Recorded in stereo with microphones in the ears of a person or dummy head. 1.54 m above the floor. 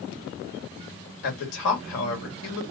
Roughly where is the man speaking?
Left.